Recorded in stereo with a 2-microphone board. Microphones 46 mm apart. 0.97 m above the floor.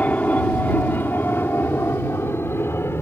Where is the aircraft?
35° left (ahead or behind); by 3.0 s 70° left (ahead or behind).